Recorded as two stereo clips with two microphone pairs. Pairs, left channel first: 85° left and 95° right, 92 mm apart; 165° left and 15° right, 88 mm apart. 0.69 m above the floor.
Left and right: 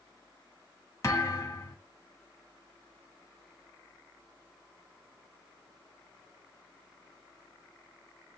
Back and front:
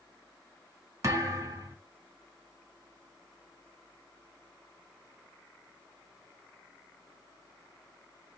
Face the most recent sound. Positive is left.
turn(degrees=30)